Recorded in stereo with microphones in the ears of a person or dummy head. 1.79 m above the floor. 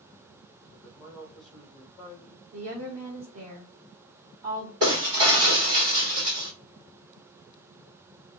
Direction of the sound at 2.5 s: 25° right (ahead or behind).